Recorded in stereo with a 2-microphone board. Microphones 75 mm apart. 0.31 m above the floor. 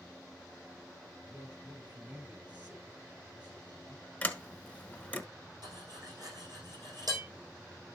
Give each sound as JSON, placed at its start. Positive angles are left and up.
{"t": 1.2, "sound": "a man speaking", "side_deg": -20, "distance_m": 5.5}
{"t": 4.2, "sound": "a sliding door", "side_deg": 15, "distance_m": 1.3}
{"t": 5.6, "sound": "cutlery clinking", "side_deg": -60, "distance_m": 8.0}